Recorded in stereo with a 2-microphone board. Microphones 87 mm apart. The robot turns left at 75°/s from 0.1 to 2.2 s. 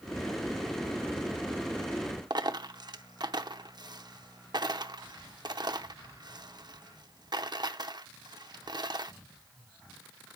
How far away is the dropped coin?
About 0.6 m.